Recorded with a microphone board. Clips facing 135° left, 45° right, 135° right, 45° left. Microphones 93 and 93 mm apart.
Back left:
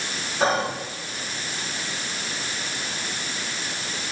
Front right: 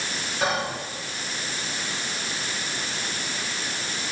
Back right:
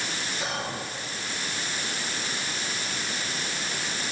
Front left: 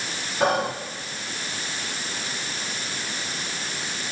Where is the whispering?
80° left, 5.5 m.